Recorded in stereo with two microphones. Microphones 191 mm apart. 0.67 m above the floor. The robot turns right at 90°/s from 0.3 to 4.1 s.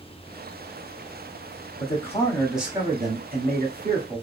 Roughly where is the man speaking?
Behind left.